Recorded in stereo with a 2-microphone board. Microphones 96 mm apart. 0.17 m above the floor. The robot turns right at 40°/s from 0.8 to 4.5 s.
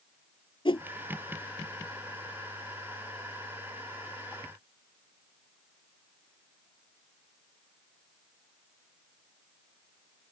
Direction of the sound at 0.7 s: 60° left (ahead or behind).